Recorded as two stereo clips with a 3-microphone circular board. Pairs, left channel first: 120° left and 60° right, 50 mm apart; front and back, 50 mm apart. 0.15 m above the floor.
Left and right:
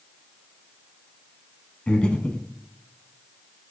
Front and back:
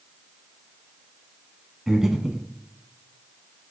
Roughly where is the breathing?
Behind left.